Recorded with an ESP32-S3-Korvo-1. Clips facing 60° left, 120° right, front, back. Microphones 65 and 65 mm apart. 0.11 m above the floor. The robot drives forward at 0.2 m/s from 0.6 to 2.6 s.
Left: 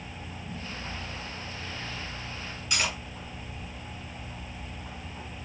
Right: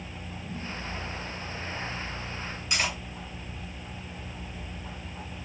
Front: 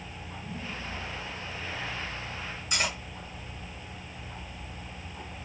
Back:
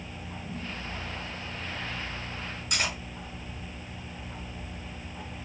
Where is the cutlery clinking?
175° left, 1.6 m.